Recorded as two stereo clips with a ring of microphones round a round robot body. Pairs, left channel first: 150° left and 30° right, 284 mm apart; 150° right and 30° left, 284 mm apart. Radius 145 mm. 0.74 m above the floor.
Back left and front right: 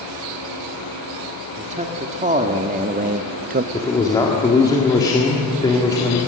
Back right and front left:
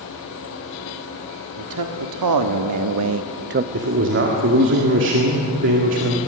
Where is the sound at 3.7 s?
75° left, 1.9 m.